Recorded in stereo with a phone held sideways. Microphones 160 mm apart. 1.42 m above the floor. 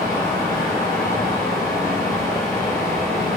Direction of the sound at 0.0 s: 15° left (ahead or behind).